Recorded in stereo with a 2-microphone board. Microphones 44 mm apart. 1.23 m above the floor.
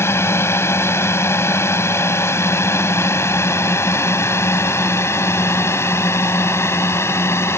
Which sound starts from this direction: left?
A drone, at 0.0 s.